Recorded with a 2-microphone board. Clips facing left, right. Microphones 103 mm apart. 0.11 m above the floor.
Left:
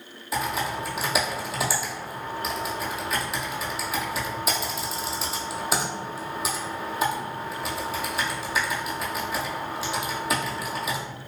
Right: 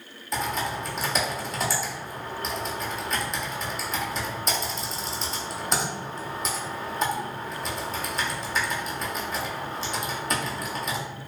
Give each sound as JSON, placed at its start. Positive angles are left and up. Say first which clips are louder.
{"t": 0.3, "sound": "typing on a keyboard", "louder": "left 1 dB", "side_deg": 5, "distance_m": 0.6}